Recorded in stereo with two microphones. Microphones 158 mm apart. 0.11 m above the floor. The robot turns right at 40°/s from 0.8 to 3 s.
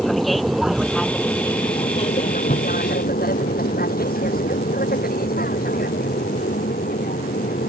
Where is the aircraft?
Centre (ahead or behind); by 7.7 s 70° left (ahead or behind).